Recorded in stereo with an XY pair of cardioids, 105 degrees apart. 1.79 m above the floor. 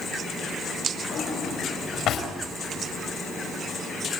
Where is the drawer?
65° left, 5 m.